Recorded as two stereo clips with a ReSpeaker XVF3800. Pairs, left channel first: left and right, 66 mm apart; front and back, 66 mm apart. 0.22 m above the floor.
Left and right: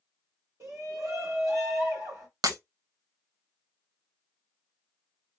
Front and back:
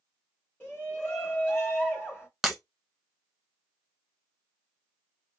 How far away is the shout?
About 2 m.